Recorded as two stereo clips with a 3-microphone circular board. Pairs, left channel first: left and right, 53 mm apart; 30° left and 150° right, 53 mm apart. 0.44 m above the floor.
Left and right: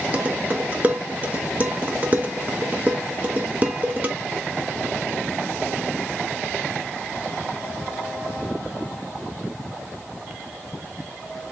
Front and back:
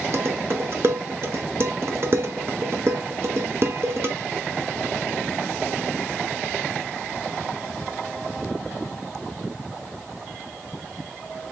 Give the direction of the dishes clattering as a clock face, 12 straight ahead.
5 o'clock.